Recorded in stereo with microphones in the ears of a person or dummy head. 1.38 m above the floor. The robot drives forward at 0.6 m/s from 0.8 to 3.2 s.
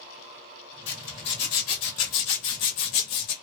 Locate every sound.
0.9 s a zipper: 50° left (ahead or behind), 2.0 m; by 3.3 s 55° left (ahead or behind), 1.8 m